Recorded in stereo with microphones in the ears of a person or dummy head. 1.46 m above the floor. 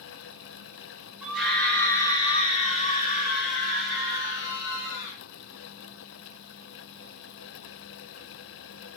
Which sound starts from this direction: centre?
A scream, at 1.2 s.